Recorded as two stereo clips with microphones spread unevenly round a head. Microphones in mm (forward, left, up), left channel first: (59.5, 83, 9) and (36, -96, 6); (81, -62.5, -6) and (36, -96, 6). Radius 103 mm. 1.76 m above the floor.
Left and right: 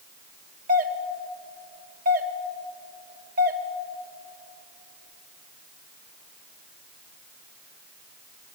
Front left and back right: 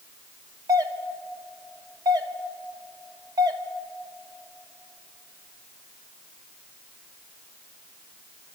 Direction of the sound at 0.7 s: 150° right.